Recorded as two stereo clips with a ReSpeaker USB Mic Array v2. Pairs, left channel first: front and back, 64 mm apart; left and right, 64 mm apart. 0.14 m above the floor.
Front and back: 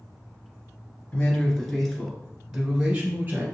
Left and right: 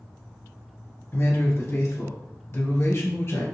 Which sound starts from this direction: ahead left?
A man speaking, at 1.1 s.